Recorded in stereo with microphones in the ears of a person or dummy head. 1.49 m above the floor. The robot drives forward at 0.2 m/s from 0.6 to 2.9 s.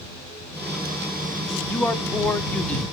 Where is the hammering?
No hammering in this recording.